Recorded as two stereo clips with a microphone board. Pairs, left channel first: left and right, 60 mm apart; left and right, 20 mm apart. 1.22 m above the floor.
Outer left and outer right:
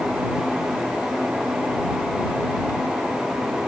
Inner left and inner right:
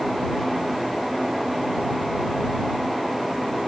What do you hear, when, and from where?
Only background noise.